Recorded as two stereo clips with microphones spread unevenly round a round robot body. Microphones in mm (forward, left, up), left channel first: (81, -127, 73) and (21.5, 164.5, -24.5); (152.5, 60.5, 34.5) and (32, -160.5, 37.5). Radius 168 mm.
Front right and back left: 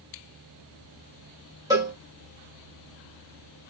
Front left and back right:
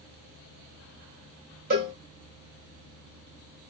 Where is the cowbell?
175° left, 3 m.